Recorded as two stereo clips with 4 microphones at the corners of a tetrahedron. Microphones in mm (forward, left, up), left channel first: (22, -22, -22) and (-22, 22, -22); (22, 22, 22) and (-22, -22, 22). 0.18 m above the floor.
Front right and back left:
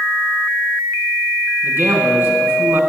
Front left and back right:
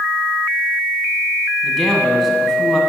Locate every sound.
1.6 s a man speaking: 130° left, 1.9 m